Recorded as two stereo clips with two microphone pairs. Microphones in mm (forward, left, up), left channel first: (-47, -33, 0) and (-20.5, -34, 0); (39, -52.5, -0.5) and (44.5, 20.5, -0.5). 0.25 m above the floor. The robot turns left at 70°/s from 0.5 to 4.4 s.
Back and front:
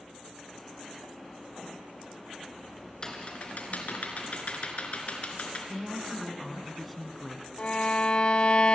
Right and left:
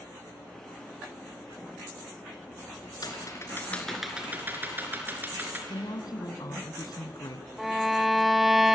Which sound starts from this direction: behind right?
Typing on a keyboard, at 3.0 s.